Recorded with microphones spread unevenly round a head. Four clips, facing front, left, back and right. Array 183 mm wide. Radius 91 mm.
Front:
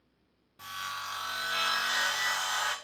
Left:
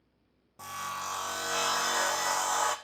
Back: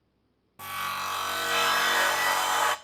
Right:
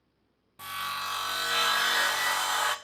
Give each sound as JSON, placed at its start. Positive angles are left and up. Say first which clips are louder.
{"t": 0.6, "sound": "sawing", "louder": "right 2 dB, back 6 dB", "azimuth_deg": 170, "distance_m": 0.5}